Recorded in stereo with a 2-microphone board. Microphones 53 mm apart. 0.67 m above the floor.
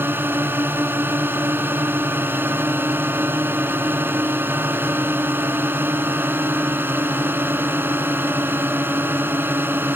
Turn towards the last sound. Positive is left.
turn(degrees=-40)  # may be behind; listen again after turning